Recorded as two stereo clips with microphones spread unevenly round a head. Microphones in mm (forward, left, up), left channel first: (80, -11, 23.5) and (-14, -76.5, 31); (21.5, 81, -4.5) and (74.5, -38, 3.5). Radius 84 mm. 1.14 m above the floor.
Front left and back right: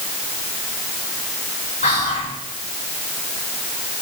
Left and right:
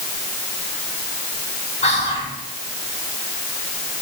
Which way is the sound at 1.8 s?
80° left.